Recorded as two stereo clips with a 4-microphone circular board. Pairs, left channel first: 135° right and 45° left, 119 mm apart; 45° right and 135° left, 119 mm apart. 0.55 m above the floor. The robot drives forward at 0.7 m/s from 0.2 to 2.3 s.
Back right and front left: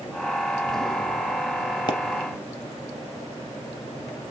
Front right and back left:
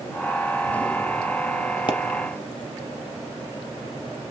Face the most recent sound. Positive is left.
turn(degrees=-110)